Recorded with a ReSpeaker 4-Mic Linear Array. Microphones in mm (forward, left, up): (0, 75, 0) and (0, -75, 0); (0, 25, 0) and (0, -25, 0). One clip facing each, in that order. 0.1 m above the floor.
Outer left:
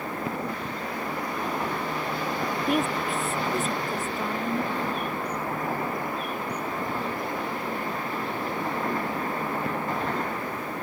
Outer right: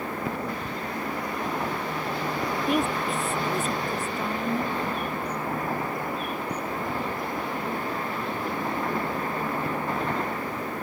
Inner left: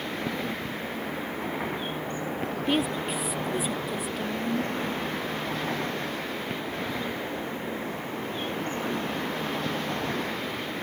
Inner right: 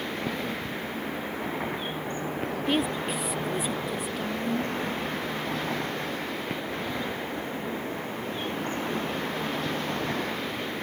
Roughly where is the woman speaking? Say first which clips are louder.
Even, even; centre.